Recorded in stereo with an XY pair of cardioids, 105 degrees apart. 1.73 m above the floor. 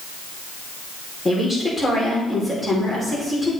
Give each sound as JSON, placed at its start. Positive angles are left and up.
{"t": 1.2, "sound": "a woman speaking", "azimuth_deg": 15, "distance_m": 5.0}